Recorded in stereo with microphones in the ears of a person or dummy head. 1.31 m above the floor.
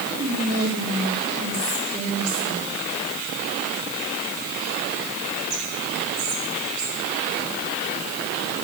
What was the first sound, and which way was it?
Whispering, 45° right (ahead or behind).